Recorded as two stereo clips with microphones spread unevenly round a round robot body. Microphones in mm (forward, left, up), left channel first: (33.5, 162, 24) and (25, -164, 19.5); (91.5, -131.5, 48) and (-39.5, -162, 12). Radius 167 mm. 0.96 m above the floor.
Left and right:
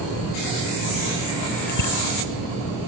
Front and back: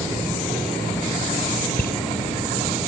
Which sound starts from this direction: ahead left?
A bicycle bell, at 1.7 s.